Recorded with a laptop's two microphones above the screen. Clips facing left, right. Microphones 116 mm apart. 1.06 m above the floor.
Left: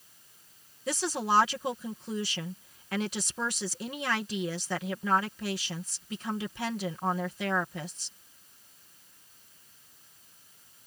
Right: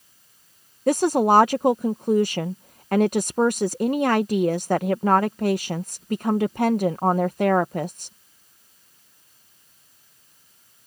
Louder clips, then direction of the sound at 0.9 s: Right 12 dB; 55° right (ahead or behind).